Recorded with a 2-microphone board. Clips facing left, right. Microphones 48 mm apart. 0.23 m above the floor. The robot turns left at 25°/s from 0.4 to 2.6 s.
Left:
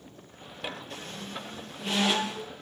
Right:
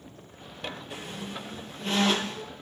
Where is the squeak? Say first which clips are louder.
Right 2 dB; 20° right (ahead or behind), 2.5 m; by 2.5 s 20° left (ahead or behind), 2.5 m.